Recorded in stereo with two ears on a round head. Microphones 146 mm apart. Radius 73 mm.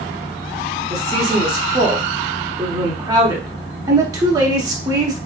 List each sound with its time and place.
0.9 s a woman speaking: 25° right (ahead or behind), 0.9 m